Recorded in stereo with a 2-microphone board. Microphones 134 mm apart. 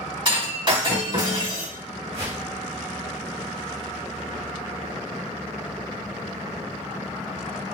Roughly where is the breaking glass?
Right.